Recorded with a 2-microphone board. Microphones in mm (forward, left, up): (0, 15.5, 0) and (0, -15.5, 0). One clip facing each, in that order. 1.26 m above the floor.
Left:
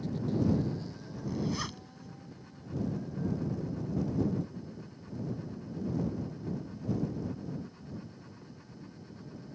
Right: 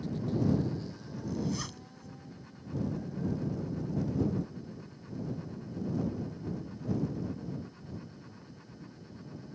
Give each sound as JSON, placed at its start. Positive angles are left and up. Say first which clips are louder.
{"t": 1.3, "sound": "a zipper", "louder": "left 1 dB", "side_deg": 15}